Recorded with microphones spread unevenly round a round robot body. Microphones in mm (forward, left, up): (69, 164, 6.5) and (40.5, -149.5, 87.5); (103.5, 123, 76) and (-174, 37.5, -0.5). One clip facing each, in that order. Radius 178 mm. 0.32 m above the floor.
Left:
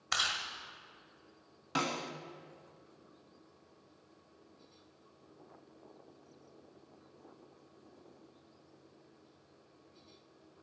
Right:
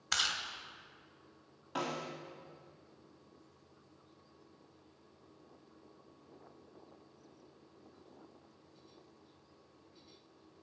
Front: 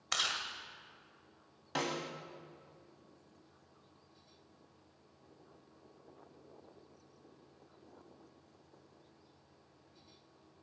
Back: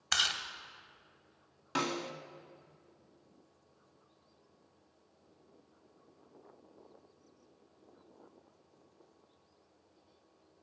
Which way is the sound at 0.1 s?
175° left.